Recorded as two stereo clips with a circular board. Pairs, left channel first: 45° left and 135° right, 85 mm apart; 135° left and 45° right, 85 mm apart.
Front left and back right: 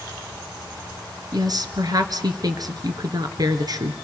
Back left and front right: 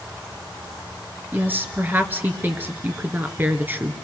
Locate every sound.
1.3 s a woman speaking: 110° right, 1.9 m